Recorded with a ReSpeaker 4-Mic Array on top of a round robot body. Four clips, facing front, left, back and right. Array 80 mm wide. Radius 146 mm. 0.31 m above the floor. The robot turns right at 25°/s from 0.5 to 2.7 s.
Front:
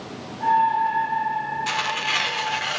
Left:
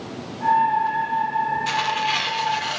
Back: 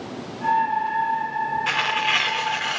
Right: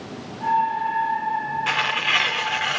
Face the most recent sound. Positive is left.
turn(degrees=-95)